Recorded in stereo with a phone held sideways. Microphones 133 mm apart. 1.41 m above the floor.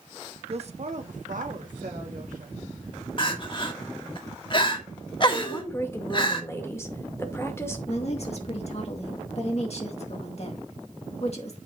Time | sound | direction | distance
0.5 | a woman speaking | 50° right (ahead or behind) | 1.0 m
3.2 | crying | 40° left (ahead or behind) | 1.4 m
5.4 | a woman speaking | 20° left (ahead or behind) | 1.9 m
7.9 | a woman speaking | 50° left (ahead or behind) | 2.5 m